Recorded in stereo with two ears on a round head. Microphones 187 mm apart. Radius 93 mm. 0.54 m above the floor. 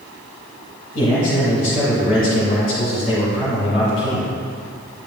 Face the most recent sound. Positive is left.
turn(degrees=30)  # may be behind; listen again after turning